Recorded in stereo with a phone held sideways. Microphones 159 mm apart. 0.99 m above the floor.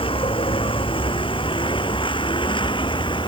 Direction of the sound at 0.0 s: 35° left (ahead or behind).